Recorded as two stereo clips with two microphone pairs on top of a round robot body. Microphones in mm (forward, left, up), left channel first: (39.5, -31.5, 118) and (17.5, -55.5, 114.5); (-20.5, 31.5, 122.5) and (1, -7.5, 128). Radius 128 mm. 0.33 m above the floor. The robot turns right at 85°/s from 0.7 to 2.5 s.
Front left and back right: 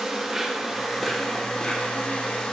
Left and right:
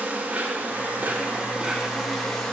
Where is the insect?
85° right, 1.7 m; by 2.5 s 65° left, 1.7 m.